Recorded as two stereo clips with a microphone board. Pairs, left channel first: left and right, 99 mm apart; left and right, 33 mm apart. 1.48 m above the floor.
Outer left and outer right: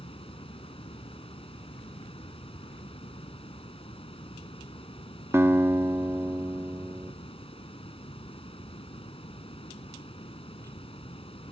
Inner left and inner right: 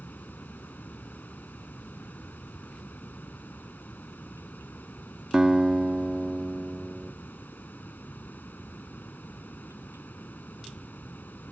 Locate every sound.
0.0 s running water: 65° left (ahead or behind)
5.3 s a guitar: 25° right (ahead or behind)